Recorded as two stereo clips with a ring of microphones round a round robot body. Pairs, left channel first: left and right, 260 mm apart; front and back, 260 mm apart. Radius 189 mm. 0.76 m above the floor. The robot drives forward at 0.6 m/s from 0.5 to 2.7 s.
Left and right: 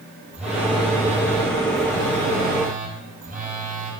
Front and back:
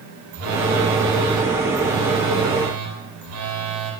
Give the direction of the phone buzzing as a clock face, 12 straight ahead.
6 o'clock.